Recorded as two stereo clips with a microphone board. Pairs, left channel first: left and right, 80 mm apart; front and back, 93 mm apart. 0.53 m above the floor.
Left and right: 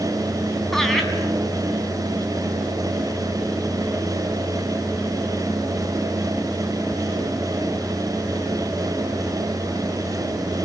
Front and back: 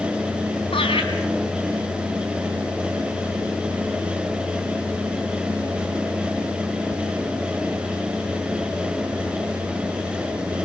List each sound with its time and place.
0.7 s laughter: 5° left, 4.5 m